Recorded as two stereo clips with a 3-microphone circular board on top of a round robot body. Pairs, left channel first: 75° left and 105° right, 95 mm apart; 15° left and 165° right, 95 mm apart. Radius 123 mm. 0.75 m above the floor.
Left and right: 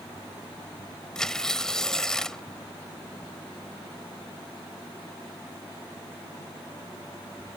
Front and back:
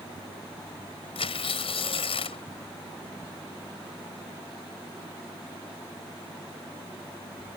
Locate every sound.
1.1 s tearing paper: 10° right